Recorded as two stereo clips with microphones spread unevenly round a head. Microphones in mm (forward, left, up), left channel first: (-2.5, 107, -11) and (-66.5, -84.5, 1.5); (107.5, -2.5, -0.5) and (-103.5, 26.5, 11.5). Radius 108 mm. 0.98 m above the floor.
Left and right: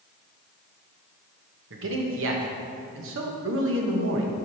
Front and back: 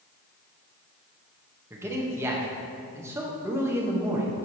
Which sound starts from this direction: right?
A man speaking, at 1.7 s.